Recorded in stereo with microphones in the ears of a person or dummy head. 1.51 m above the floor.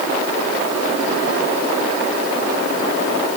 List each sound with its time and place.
Only background noise.